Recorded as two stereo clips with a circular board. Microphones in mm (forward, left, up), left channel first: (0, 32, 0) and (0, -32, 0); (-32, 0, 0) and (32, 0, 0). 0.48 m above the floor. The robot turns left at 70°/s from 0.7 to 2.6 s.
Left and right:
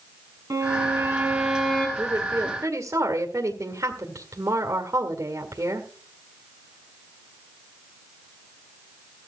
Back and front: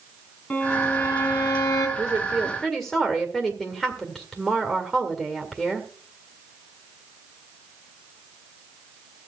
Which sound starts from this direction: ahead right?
A woman speaking, at 2.0 s.